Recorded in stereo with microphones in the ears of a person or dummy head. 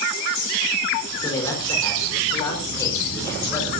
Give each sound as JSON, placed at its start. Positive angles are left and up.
{"t": 1.2, "sound": "a man speaking", "side_deg": 25, "distance_m": 6.5}